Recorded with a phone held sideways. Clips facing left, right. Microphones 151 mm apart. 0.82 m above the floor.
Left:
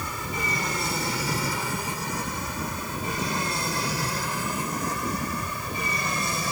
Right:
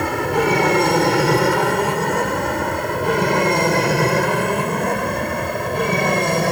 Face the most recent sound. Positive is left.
turn(degrees=-60)  # may be behind; listen again after turning